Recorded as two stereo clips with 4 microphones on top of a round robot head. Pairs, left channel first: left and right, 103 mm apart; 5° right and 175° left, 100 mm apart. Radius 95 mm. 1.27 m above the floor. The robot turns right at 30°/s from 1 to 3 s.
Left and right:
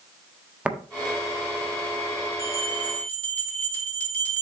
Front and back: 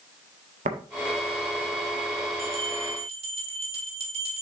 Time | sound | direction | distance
0.7 | tapping | 170° right | 1.4 m
2.4 | a bell | 150° left | 3 m